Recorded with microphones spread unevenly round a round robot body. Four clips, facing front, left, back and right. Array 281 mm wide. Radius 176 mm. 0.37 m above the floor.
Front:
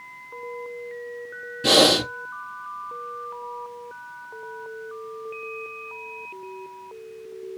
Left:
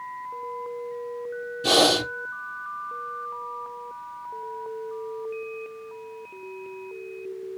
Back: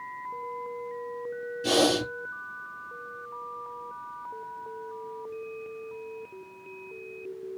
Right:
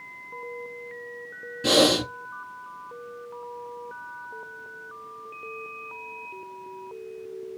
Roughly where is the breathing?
Ahead.